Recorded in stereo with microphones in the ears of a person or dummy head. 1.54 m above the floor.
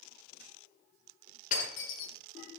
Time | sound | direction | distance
1.5 | breaking glass | 45° left (ahead or behind) | 9 m